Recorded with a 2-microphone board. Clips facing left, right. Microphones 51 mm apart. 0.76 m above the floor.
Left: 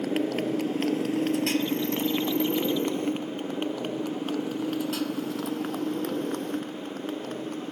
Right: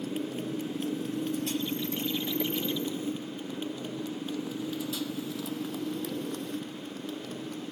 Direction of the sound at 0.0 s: 90° left.